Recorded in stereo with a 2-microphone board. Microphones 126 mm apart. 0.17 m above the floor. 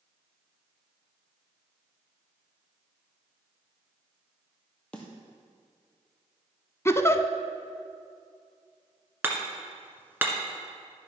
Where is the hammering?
15° right (ahead or behind), 1.5 m.